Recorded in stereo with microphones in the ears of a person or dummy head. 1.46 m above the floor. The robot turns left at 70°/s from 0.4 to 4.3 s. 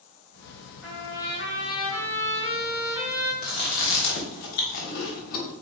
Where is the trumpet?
175° right, 1.9 m; by 3.3 s 10° left, 1.9 m.